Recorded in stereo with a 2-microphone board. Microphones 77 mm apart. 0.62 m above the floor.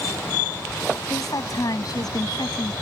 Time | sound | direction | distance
1.1 | a woman speaking | 50° left (ahead or behind) | ?